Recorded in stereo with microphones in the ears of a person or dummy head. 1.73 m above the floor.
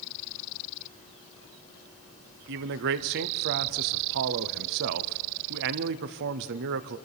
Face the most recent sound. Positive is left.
turn(degrees=-55)  # may be behind; listen again after turning